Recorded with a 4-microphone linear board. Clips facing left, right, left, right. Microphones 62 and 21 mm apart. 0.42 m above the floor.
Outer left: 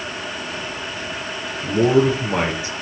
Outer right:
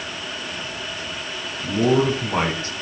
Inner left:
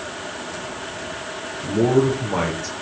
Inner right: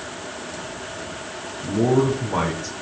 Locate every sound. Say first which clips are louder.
1.6 s a man speaking: outer left 3 dB, inner left 1 dB; 15° left (ahead or behind), 7 m; by 2.7 s 10° left (ahead or behind), 6.5 m